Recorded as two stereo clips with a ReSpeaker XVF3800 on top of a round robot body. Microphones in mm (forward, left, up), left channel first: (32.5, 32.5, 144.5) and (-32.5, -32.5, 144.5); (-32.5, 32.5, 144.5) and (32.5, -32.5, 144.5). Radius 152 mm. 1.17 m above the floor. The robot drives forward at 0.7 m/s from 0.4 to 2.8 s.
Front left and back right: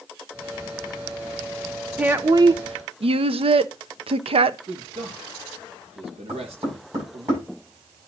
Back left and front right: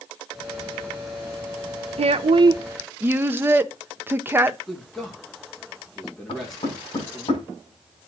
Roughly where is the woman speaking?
Ahead right.